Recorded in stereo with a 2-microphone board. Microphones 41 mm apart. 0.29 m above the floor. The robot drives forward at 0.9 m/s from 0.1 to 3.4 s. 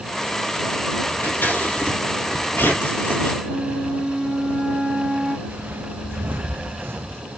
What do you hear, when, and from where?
1.2 s scissors: 50° left (ahead or behind), 6 m; by 3.3 s 70° left (ahead or behind), 5 m
3.4 s a flute: 10° left (ahead or behind), 4 m
5.5 s footsteps: 55° right (ahead or behind), 1.5 m; by 7.2 s 70° right (ahead or behind), 0.8 m